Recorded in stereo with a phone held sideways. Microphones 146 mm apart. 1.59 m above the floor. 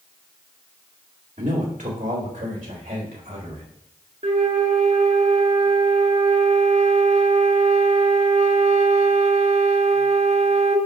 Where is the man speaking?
65° right (ahead or behind), 2 m.